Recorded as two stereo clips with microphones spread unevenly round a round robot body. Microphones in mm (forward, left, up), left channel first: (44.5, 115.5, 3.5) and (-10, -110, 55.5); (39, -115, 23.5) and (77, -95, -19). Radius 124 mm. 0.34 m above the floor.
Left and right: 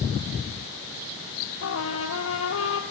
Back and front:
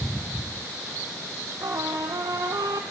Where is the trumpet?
45° left, 2 m.